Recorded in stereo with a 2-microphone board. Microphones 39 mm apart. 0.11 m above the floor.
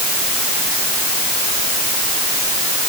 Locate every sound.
Only background noise.